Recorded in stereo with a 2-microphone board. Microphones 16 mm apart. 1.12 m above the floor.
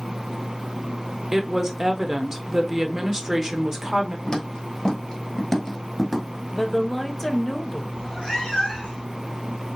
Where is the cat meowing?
50° left (ahead or behind), 3 m.